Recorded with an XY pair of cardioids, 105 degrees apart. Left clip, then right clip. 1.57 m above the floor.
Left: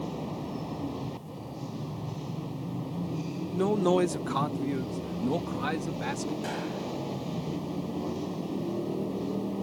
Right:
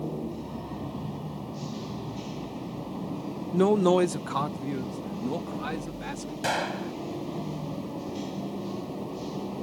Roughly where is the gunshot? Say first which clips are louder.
Right 5 dB; ahead right.